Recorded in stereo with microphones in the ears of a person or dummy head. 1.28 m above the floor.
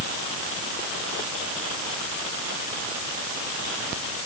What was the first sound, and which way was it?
Only background noise.